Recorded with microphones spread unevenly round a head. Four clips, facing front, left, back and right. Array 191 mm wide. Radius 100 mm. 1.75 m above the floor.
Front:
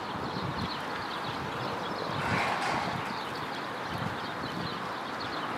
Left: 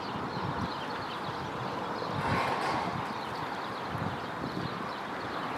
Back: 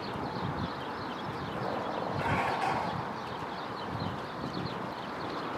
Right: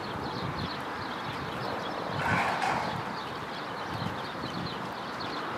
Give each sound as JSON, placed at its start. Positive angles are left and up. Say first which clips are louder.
{"t": 2.1, "sound": "dishes clattering", "louder": "right 2 dB, front 1 dB", "azimuth_deg": 130, "distance_m": 5.5}